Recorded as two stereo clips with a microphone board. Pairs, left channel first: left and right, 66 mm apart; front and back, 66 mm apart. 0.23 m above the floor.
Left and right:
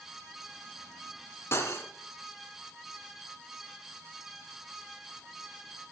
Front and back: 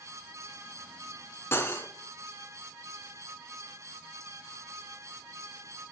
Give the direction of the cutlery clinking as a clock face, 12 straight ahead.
10 o'clock.